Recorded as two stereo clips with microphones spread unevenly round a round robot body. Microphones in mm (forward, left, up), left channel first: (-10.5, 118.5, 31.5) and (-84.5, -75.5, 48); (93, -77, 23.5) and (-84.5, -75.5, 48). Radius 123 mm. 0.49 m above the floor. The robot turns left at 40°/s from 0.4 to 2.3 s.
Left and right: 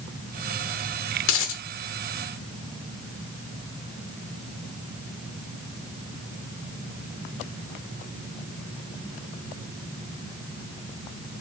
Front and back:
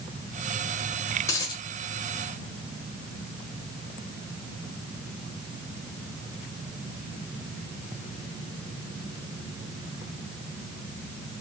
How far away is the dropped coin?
About 0.6 m.